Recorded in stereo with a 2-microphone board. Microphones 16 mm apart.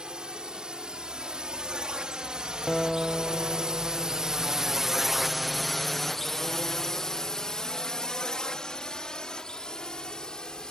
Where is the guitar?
5° left (ahead or behind).